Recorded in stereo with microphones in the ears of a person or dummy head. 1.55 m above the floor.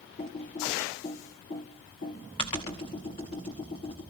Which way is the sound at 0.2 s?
25° left (ahead or behind).